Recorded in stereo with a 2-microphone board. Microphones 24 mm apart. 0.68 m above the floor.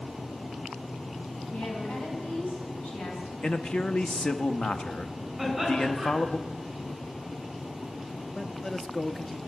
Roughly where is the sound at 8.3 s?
Centre.